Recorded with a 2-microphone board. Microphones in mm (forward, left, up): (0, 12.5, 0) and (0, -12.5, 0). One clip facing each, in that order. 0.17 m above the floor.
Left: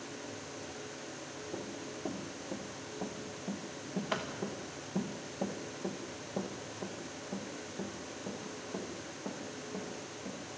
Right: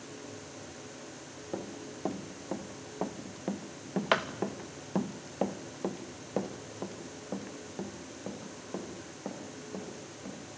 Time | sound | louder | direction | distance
1.5 | running footsteps | right 4 dB | 45° right (ahead or behind) | 2.5 m